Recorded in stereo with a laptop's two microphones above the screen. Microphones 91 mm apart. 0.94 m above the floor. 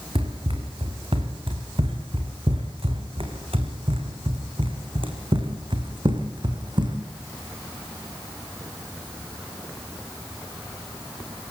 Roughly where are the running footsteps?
Right.